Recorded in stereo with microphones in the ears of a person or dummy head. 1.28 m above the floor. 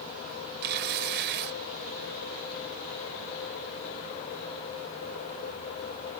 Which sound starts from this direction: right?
Tearing paper, at 0.6 s.